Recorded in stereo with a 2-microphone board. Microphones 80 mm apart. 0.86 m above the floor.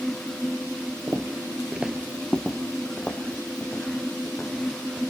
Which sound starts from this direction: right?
Footsteps, at 1.1 s.